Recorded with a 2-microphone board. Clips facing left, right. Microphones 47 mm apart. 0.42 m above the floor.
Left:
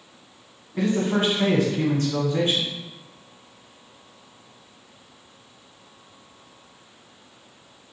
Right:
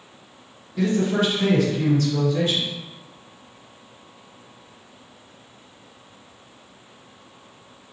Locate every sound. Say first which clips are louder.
0.7 s a man speaking: right 1 dB; 25° left (ahead or behind), 1.1 m